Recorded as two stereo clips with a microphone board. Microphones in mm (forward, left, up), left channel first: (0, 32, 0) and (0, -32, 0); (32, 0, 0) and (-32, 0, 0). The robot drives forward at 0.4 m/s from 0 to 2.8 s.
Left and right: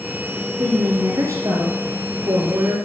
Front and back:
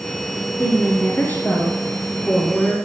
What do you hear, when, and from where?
0.6 s a woman speaking: 50° right, 3 m; by 2.8 s 70° right, 2.5 m